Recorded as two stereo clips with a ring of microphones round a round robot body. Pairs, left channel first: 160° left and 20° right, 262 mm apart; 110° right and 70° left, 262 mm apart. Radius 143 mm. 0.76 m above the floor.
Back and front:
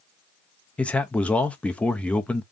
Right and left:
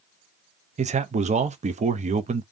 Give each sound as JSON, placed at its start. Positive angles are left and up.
{"t": 0.8, "sound": "a man speaking", "azimuth_deg": 80, "distance_m": 0.6}